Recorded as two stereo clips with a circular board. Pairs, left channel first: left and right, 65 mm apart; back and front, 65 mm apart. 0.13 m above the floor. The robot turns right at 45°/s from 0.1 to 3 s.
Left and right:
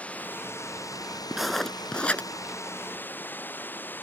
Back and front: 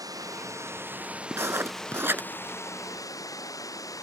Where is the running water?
20° left; by 4.0 s 150° left.